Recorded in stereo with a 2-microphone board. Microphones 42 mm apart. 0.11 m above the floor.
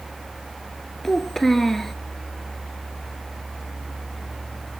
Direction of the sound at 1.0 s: 5° left (ahead or behind).